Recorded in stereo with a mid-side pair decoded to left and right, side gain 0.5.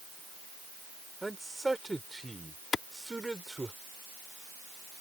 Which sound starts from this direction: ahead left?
A clap, at 2.7 s.